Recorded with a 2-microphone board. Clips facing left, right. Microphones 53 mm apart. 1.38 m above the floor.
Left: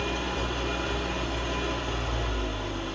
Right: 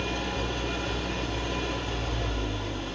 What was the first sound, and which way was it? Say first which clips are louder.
An engine running: left 1 dB; 5° left (ahead or behind).